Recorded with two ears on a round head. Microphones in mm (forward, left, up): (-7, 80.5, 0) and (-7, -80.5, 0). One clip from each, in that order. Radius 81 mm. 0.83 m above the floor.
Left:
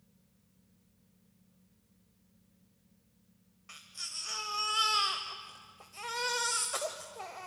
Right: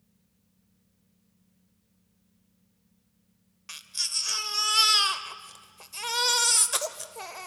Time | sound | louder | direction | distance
3.7 | a baby crying | right 11 dB | 75° right (ahead or behind) | 1.3 m